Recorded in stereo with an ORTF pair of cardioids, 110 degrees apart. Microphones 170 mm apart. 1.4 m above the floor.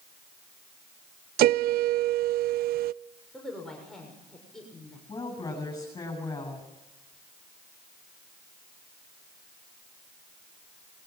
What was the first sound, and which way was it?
A piano, 65° right.